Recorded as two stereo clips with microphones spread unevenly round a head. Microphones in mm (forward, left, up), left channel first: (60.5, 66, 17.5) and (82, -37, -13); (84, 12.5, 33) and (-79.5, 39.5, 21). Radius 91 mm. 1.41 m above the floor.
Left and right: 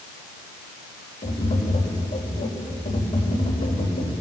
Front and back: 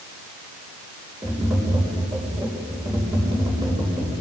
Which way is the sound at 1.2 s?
95° left.